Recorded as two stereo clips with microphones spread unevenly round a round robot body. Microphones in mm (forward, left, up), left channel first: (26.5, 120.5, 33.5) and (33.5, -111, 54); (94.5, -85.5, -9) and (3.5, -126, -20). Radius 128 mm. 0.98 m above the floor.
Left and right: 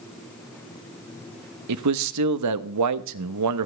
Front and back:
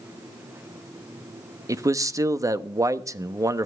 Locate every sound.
1.7 s a man speaking: 95° right, 1.0 m